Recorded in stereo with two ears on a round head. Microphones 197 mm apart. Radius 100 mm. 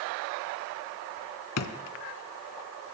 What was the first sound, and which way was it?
A drawer, 75° left (ahead or behind).